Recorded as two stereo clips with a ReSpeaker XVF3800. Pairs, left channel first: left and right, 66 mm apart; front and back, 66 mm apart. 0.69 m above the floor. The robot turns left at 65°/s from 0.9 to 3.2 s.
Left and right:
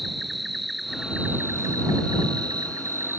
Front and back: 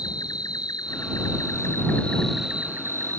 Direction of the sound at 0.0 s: Straight ahead.